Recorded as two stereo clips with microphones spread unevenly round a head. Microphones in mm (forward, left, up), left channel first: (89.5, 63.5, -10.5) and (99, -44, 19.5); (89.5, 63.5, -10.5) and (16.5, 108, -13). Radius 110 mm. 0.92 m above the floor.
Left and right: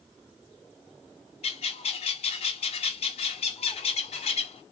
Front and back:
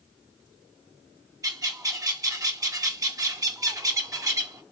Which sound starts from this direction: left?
A bird, at 1.4 s.